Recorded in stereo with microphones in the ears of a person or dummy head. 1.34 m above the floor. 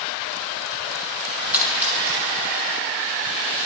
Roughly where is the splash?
Centre.